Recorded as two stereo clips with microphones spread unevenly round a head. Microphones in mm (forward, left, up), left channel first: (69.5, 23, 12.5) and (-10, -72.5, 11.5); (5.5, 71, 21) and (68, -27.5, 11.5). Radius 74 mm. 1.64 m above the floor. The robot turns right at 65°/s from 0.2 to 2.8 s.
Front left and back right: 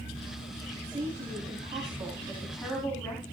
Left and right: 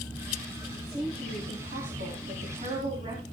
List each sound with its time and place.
0.7 s a woman speaking: 160° right, 4.5 m; by 3.2 s 25° right, 4.5 m